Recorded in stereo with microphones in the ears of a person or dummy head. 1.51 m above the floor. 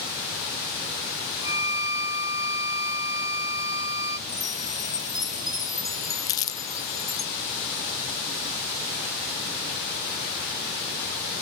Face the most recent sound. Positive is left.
turn(degrees=30)  # may be behind; listen again after turning